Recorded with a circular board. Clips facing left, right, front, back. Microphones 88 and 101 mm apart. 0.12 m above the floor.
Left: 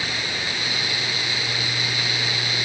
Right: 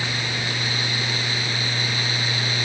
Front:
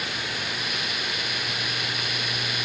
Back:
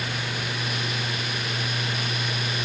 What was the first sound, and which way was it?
Only background noise.